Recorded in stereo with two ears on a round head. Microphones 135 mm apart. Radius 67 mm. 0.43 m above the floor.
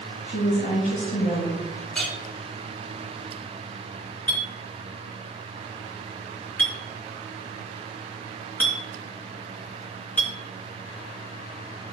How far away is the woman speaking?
About 4 m.